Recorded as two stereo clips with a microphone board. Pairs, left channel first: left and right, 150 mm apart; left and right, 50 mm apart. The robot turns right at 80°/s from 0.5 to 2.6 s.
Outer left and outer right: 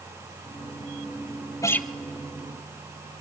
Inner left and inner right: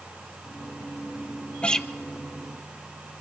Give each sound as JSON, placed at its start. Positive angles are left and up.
{"t": 1.6, "sound": "a guitar", "side_deg": 20, "distance_m": 0.6}